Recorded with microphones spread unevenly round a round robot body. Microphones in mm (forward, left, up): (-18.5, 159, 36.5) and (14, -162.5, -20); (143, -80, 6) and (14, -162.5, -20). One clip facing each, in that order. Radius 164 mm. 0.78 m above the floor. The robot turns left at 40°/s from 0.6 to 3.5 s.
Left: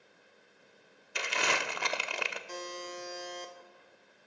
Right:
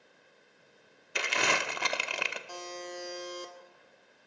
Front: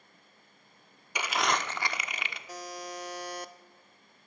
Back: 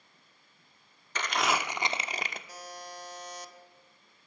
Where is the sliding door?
I don't hear a sliding door.